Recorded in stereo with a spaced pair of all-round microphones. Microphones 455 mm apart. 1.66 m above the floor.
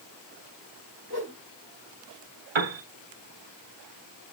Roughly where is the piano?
Right.